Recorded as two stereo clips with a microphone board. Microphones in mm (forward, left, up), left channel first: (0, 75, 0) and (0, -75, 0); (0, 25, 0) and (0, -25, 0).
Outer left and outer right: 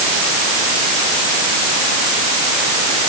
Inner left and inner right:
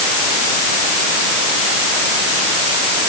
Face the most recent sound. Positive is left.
No sound to turn to.